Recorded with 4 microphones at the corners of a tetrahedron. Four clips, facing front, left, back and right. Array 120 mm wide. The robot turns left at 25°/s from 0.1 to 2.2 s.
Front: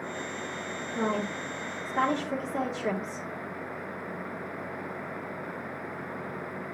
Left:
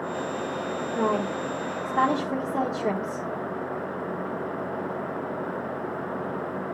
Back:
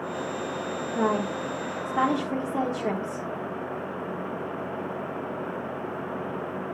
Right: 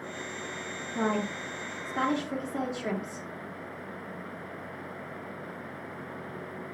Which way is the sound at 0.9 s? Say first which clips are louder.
Left 3 dB, back 4 dB; 150° left.